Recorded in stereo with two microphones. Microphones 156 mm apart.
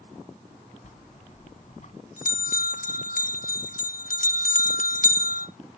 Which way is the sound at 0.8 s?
60° left (ahead or behind).